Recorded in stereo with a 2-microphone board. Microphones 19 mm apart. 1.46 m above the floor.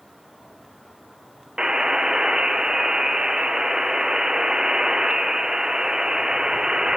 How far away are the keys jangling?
No keys jangling in this recording.